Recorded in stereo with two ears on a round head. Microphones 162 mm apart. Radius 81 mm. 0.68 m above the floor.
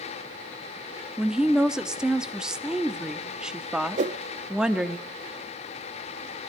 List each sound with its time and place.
1.2 s a woman speaking: 5° right (ahead or behind), 1.0 m
4.0 s a whoosh: 40° right (ahead or behind), 0.6 m